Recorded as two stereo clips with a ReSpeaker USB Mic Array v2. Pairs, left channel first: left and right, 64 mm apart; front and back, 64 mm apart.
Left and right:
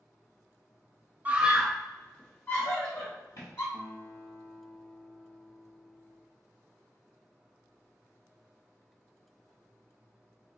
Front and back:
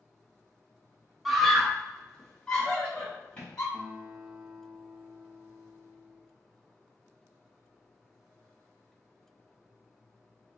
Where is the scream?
95° right, 0.6 m; by 3.6 s 65° left, 1.2 m.